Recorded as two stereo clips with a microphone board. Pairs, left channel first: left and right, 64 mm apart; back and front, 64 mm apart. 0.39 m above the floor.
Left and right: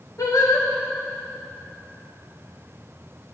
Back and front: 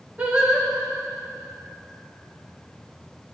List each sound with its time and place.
0.2 s singing: 65° left, 4 m